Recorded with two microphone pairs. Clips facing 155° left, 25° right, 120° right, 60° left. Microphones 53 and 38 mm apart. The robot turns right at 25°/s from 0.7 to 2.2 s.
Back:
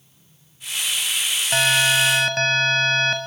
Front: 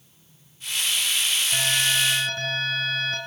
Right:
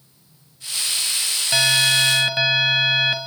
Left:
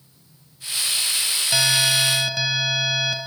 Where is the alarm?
160° left, 2.5 m; by 3.2 s straight behind, 2.5 m.